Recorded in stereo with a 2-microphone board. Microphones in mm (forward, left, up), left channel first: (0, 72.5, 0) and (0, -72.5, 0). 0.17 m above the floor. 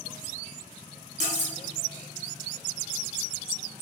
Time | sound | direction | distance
1.2 | cutlery clinking | 50° right (ahead or behind) | 1.1 m